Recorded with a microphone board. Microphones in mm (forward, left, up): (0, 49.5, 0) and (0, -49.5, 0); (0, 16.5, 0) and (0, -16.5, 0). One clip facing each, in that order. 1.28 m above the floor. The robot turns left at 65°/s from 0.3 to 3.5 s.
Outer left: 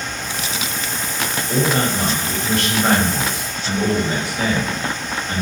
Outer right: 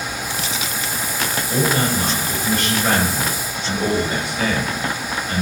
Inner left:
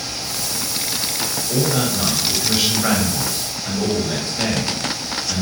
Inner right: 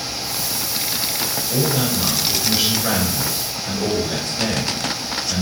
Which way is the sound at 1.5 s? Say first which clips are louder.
Outer left 1 dB, inner left 1 dB; 155° left.